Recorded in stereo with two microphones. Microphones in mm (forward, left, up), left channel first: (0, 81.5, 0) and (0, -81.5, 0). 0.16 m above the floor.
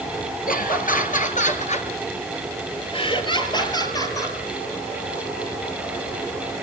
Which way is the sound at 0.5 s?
60° left (ahead or behind).